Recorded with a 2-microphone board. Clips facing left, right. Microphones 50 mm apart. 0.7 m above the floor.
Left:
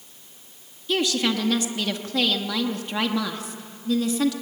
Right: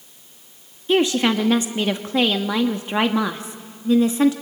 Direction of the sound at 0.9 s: 25° right (ahead or behind).